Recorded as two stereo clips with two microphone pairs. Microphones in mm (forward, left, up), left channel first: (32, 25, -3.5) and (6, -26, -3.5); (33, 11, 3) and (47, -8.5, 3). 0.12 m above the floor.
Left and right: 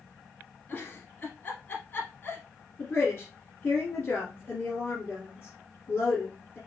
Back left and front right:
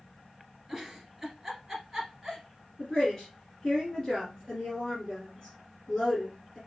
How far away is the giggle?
About 2 m.